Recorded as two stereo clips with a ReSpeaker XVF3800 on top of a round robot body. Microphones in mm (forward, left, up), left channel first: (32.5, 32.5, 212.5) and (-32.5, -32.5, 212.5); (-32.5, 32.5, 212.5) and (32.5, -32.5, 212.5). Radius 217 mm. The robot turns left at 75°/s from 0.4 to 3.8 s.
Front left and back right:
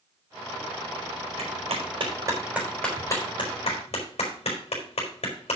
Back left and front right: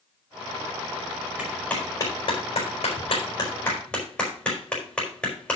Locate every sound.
1.4 s a clap: 125° right, 4 m; by 5.6 s 55° left, 4 m